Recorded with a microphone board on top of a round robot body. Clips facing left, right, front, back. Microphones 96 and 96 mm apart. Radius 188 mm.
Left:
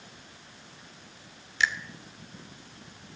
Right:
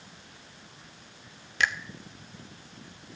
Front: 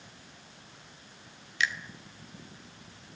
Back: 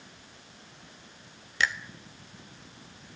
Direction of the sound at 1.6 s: 130° right.